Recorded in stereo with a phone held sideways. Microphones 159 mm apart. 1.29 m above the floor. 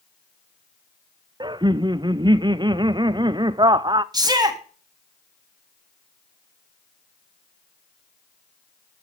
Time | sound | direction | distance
1.4 | laughter | 30° right (ahead or behind) | 0.6 m
4.1 | a shout | 25° right (ahead or behind) | 2.0 m